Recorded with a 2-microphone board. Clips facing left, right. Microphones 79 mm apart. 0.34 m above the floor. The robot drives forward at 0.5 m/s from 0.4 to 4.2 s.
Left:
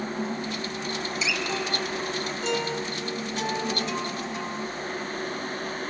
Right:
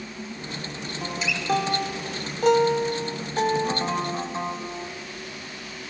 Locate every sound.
1.0 s a guitar: 45° right (ahead or behind), 1.0 m; by 4.9 s 30° right (ahead or behind), 1.4 m